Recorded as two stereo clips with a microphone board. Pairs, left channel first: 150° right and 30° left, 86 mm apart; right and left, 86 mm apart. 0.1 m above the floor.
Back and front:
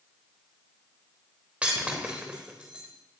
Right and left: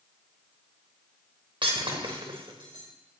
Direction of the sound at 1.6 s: 110° left.